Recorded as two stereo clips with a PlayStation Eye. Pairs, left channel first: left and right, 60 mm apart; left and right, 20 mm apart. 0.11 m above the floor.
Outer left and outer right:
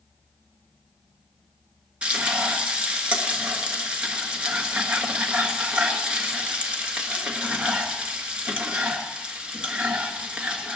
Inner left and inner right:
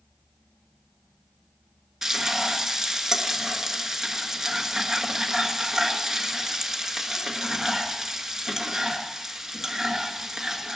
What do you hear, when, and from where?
2.0 s frying: 20° right (ahead or behind), 1.6 m